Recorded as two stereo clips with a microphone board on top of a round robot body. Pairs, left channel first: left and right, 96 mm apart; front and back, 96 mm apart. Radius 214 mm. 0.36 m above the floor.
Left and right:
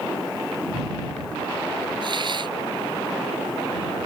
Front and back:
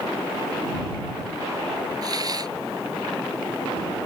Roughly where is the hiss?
Behind right.